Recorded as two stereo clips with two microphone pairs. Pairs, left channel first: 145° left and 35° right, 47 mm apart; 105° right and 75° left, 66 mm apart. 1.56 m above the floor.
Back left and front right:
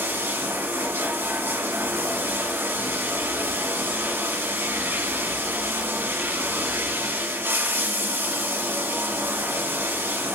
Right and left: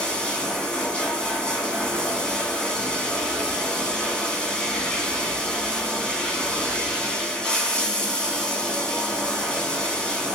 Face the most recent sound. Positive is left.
turn(degrees=-30)